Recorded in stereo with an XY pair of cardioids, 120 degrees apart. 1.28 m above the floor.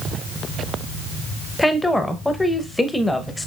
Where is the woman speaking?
10° left, 0.8 m.